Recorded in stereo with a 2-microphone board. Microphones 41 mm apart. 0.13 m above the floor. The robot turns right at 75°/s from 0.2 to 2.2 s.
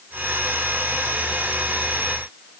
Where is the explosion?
I don't hear an explosion.